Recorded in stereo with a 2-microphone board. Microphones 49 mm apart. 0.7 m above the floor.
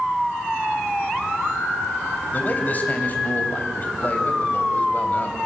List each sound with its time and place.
2.3 s a man speaking: 35° left (ahead or behind), 3 m